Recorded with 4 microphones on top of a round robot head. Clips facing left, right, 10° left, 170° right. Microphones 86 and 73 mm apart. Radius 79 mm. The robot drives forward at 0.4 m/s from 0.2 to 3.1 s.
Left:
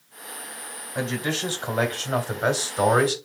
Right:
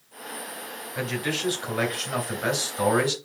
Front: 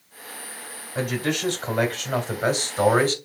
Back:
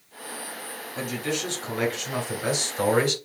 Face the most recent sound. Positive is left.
turn(degrees=50)